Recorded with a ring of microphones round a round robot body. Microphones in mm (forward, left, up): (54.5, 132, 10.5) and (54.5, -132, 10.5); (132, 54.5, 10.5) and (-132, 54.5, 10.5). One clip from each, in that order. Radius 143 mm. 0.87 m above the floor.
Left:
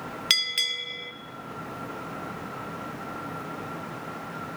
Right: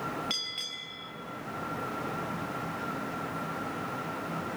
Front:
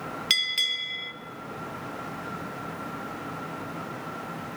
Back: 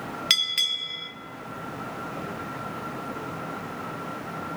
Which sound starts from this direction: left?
A bell, at 0.3 s.